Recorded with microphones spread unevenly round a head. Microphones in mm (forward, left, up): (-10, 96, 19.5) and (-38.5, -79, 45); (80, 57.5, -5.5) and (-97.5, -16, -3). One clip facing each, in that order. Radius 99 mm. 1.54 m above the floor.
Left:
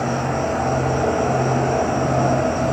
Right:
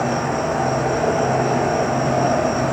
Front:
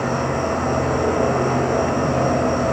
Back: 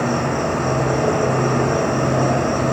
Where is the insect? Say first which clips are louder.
Right 1 dB, back 2 dB; straight behind, 1.9 m.